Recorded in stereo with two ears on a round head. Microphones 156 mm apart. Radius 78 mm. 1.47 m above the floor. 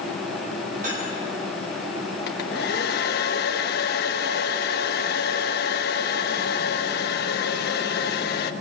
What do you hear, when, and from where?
0.8 s cutlery clinking: 45° right (ahead or behind), 9.5 m
2.3 s a hair dryer: 65° left (ahead or behind), 1.3 m